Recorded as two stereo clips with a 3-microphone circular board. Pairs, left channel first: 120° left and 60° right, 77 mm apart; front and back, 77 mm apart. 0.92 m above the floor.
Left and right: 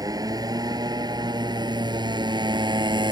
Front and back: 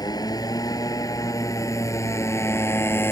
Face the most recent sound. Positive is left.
turn(degrees=-55)